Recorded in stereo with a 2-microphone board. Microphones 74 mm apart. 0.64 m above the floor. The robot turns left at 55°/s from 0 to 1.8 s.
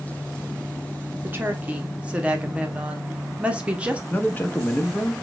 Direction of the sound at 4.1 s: 25° left (ahead or behind).